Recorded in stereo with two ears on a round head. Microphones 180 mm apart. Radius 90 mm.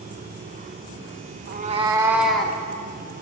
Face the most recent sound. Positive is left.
turn(degrees=10)  # may be behind; listen again after turning